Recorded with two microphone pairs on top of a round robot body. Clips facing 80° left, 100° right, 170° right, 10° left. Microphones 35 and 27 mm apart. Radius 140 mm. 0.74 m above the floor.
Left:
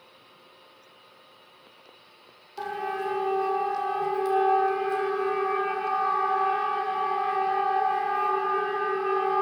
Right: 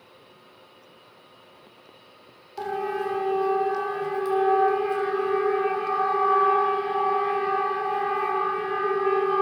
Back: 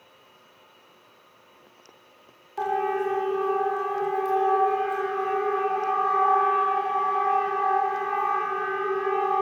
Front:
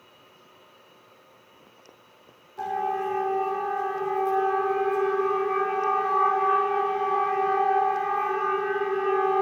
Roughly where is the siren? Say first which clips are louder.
Right 3 dB, back 2 dB; behind.